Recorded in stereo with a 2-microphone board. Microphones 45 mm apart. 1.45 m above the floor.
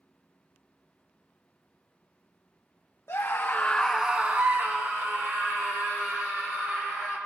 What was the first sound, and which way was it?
A scream, 65° left (ahead or behind).